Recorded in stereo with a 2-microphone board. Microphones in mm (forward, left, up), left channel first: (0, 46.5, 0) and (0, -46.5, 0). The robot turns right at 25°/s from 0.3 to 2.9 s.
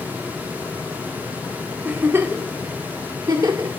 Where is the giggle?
20° right (ahead or behind), 2 m; by 3.7 s 40° right (ahead or behind), 2 m.